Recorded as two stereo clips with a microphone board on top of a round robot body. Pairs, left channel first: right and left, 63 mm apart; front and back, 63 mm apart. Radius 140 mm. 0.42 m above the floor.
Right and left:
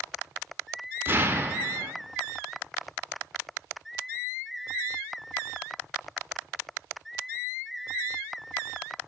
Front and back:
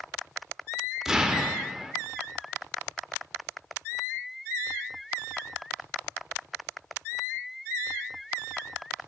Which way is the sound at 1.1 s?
100° left.